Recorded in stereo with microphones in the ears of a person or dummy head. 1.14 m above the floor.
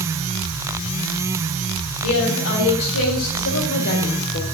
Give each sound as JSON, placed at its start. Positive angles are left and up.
{"t": 2.0, "sound": "a woman speaking", "side_deg": 80, "distance_m": 4.5}